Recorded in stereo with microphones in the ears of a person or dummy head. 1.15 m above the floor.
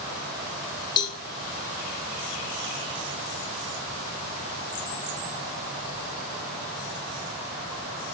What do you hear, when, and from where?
1.0 s a cowbell: 25° left (ahead or behind), 1.2 m